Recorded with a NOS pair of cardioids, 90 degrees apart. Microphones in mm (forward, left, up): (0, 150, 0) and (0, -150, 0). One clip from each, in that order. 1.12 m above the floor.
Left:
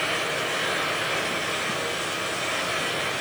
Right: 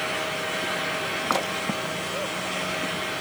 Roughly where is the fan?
Ahead left.